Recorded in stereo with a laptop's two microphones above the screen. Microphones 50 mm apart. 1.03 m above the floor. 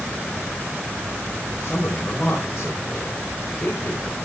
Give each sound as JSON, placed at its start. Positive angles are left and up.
{"t": 1.5, "sound": "a man speaking", "side_deg": 40, "distance_m": 4.0}